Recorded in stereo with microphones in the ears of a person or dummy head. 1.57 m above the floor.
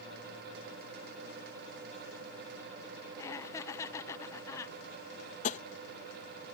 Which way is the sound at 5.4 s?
45° left (ahead or behind).